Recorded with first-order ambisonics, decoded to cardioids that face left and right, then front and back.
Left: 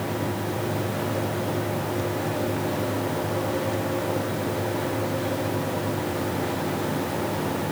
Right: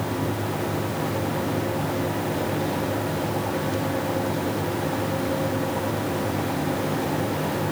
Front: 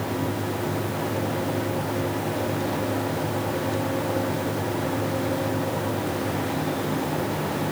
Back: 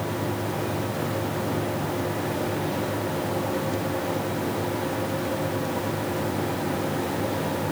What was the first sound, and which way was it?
Only background noise.